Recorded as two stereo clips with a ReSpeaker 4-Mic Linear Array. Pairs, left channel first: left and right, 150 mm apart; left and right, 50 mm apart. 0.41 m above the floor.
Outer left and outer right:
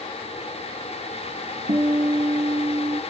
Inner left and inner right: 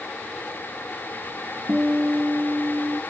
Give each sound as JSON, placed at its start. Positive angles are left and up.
{"t": 1.7, "sound": "a guitar", "side_deg": -50, "distance_m": 0.8}